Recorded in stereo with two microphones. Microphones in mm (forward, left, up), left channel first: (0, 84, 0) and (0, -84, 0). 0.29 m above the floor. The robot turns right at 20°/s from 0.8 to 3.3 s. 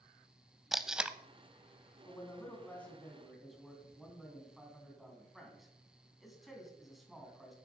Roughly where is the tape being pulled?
Centre.